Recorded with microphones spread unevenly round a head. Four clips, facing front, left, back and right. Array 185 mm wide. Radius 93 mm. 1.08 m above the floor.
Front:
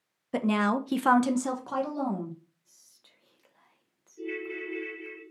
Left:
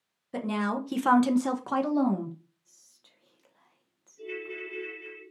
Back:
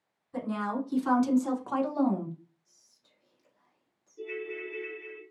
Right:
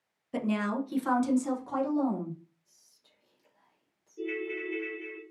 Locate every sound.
0.3 s a woman speaking: straight ahead, 0.7 m; by 2.4 s 105° left, 0.8 m
2.6 s whispering: 40° left, 0.7 m
4.2 s a ringtone: 75° right, 1.0 m